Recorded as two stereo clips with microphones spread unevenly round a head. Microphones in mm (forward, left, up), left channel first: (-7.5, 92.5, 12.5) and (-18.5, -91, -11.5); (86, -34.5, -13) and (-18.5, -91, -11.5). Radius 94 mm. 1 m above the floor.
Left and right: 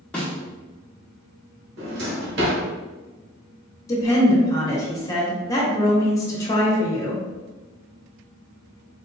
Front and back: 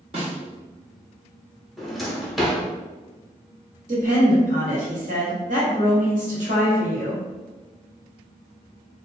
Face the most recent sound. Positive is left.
turn(degrees=160)